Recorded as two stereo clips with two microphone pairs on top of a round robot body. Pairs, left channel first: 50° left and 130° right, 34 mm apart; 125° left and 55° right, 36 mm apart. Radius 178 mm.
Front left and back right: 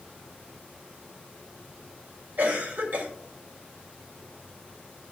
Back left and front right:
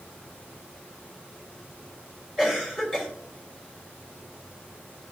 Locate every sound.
2.4 s a cough: 135° right, 3 m